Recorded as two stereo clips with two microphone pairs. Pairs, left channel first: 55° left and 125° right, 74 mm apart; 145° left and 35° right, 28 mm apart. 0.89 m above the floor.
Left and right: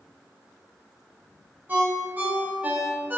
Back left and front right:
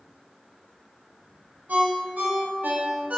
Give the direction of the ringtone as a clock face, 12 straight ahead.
2 o'clock.